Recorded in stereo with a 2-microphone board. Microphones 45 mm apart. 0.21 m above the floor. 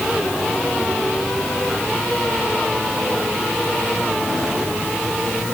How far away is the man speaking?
I don't hear a man speaking.